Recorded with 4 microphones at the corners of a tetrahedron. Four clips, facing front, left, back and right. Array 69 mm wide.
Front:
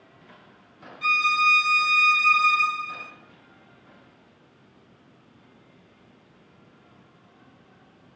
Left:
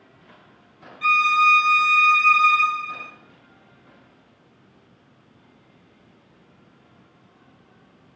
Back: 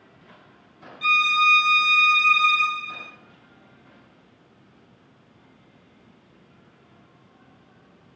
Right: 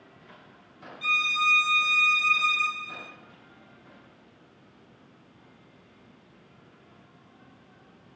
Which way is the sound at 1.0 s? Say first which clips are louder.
Left 8 dB, back 2 dB; 80° left.